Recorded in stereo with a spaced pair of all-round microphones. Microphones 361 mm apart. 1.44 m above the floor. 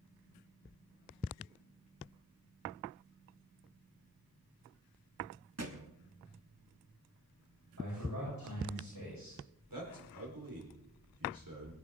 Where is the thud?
45° right (ahead or behind), 1.3 m.